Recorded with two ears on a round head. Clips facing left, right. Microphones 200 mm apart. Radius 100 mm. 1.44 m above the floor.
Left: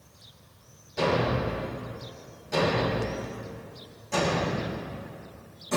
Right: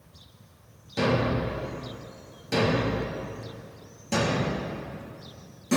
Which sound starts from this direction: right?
A thud, at 1.0 s.